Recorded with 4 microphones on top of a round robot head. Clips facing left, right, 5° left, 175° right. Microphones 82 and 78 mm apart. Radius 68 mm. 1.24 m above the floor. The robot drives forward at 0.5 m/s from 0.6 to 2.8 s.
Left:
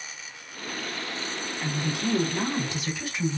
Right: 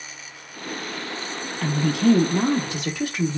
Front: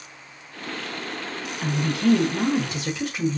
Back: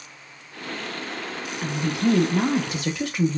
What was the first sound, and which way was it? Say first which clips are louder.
A woman speaking: right 10 dB, front 1 dB; 85° right.